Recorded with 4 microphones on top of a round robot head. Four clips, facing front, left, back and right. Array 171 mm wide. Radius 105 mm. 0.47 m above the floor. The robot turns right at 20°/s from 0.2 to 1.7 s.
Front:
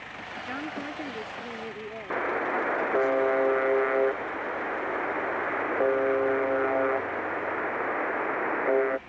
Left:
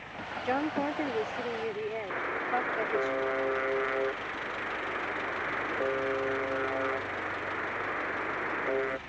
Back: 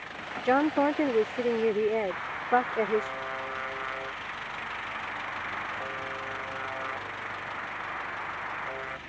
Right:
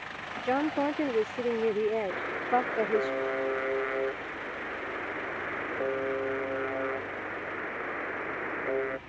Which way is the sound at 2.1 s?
10° right.